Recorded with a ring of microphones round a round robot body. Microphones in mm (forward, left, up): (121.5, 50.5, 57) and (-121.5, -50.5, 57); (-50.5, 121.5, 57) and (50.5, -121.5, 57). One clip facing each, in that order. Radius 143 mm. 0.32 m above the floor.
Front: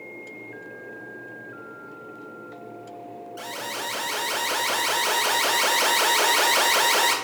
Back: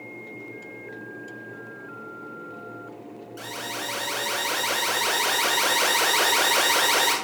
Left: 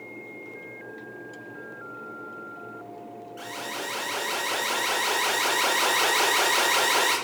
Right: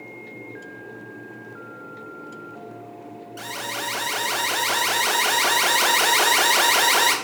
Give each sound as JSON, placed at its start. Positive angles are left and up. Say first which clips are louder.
{"t": 3.4, "sound": "an alarm", "louder": "even, right 1 dB", "azimuth_deg": -75, "distance_m": 2.5}